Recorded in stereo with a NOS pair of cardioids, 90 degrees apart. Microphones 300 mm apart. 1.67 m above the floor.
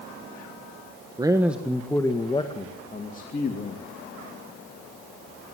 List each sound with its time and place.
1.2 s a man speaking: 15° right, 1.4 m; by 3.9 s 35° left, 3 m